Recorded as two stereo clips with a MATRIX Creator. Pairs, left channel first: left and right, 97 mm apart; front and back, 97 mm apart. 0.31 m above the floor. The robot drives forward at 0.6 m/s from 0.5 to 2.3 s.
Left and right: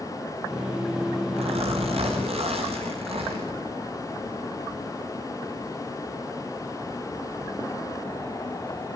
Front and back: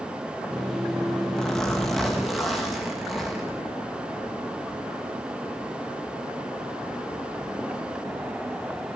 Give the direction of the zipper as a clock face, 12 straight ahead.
3 o'clock.